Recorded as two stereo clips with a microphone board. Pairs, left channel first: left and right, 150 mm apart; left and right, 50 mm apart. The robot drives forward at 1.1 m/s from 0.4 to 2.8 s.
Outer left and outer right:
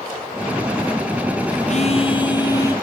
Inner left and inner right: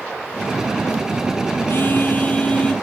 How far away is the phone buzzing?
About 1.0 m.